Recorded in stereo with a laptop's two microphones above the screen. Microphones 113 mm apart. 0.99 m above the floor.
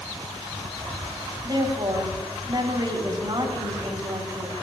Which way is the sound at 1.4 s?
45° right (ahead or behind).